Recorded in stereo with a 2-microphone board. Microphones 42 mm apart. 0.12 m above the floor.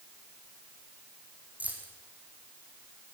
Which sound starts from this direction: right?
Keys jangling, at 1.6 s.